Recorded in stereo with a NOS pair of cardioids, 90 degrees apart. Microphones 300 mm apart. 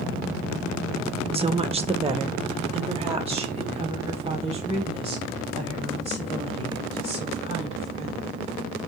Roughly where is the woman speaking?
Ahead.